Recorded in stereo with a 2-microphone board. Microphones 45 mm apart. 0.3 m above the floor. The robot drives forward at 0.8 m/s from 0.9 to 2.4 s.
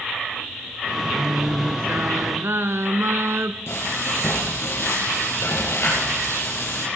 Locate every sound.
1.1 s singing: 40° right (ahead or behind), 1.3 m; by 3.6 s 80° right, 0.9 m
3.7 s frying: 80° left, 5.5 m